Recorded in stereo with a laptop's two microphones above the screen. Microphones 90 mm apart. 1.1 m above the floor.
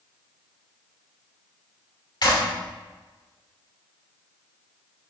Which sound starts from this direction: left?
A clap, at 2.2 s.